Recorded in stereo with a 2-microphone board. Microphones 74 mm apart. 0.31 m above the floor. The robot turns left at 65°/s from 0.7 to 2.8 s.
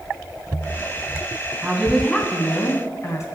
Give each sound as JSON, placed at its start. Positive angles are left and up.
{"t": 1.6, "sound": "a woman speaking", "azimuth_deg": -160, "distance_m": 2.5}